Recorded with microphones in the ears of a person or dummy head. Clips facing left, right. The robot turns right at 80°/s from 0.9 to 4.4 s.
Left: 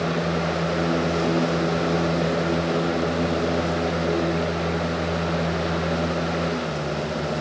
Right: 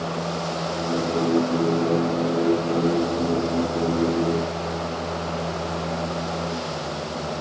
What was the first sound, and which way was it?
Only background noise.